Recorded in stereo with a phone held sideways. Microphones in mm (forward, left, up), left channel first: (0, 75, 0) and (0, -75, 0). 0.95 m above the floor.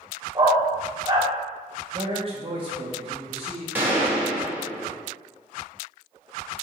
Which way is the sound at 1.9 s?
35° right (ahead or behind).